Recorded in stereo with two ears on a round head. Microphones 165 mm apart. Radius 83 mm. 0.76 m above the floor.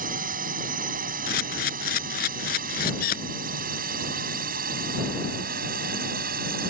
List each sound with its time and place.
0.0 s a drone: 50° right (ahead or behind); by 6.7 s 55° right (ahead or behind)
1.3 s a camera shutter: 50° left (ahead or behind)